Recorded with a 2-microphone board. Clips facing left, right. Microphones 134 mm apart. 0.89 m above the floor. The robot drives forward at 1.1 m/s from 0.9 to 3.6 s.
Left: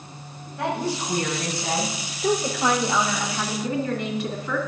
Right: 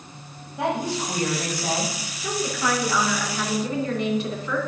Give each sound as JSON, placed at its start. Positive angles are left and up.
{"t": 0.6, "sound": "a woman speaking", "side_deg": -20, "distance_m": 4.5}
{"t": 2.2, "sound": "a woman speaking", "side_deg": 40, "distance_m": 1.1}